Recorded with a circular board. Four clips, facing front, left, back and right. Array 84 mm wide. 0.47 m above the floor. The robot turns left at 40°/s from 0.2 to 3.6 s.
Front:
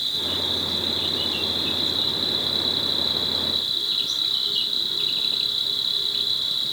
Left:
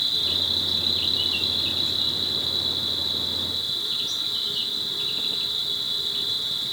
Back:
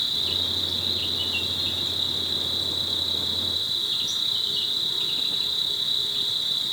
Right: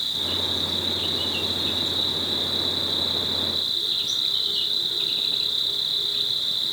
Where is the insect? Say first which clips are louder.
Right 2 dB, front 3 dB; 135° left, 1.6 m; by 6.7 s straight ahead, 1.6 m.